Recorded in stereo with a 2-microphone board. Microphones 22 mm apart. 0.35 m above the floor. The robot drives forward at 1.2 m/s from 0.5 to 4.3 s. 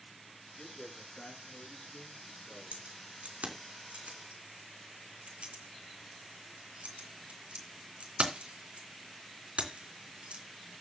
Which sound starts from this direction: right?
Keys jangling, at 2.7 s.